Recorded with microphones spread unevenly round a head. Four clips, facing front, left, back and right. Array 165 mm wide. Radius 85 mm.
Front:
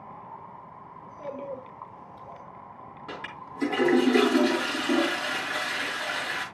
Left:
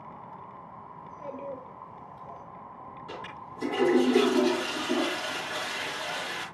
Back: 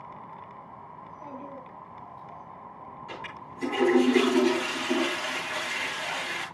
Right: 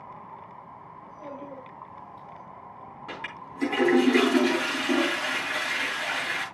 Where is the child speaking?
15° left, 4 m.